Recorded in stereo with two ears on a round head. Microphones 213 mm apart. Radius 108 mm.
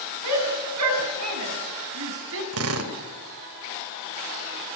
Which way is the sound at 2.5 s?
70° right (ahead or behind).